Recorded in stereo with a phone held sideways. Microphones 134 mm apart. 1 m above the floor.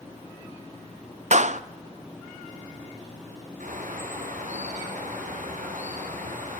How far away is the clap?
About 0.5 m.